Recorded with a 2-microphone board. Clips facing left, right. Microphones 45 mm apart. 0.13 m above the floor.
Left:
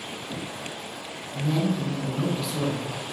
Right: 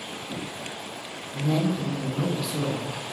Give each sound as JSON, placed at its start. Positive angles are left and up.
{"t": 1.3, "sound": "a man speaking", "side_deg": 0, "distance_m": 1.5}